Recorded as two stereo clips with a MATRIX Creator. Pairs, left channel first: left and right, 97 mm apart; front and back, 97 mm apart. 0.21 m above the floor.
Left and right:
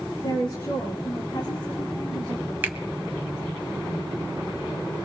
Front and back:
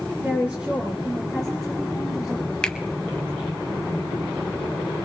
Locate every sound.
0.2 s a woman speaking: 110° left, 2.5 m; by 2.5 s 90° left, 4 m
2.6 s a finger snap: 65° right, 0.8 m